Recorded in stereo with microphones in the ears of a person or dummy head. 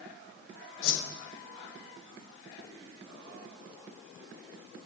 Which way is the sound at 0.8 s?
80° left.